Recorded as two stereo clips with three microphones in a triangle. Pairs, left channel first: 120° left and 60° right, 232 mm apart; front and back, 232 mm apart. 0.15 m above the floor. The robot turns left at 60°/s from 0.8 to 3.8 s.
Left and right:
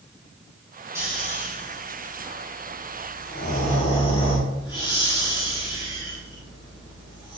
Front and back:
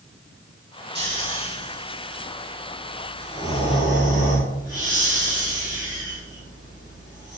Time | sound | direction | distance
0.9 | snoring | 140° right | 3.5 m